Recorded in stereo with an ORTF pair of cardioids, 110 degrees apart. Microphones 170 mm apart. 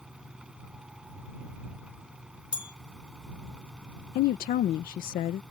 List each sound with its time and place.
0.0 s a fan: 5° right
2.5 s a bell: 25° left
4.2 s a woman speaking: 65° left